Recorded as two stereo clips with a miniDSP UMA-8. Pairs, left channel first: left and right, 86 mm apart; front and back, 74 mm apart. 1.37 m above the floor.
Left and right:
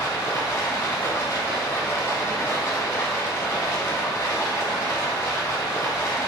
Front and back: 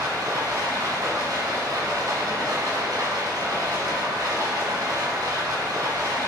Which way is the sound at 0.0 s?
140° left.